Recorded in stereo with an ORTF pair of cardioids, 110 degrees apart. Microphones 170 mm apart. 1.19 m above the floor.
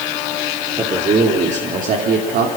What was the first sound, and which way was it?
A man speaking, 30° right.